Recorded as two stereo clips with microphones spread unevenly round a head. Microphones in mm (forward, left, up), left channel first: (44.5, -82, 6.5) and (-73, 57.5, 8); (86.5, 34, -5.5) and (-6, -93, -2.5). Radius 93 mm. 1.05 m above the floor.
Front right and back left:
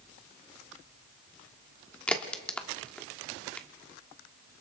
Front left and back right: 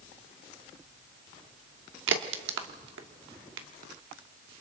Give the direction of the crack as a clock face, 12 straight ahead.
4 o'clock.